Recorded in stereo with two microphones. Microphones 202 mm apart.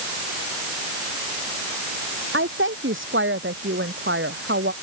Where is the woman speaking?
80° right; by 4.7 s 75° right (ahead or behind).